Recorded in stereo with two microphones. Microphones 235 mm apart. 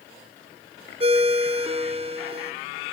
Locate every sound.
1.0 s a ringtone: 25° right (ahead or behind), 0.6 m